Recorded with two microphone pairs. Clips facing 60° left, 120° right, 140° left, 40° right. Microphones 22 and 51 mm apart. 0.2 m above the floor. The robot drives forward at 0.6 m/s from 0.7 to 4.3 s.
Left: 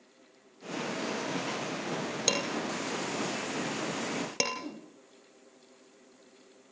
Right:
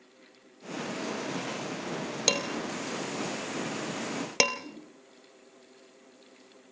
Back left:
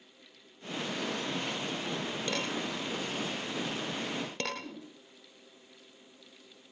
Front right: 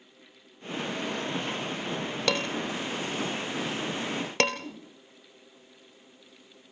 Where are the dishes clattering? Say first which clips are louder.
Right 2 dB, front right 7 dB; 45° right, 4 m; by 4.6 s 60° right, 3 m.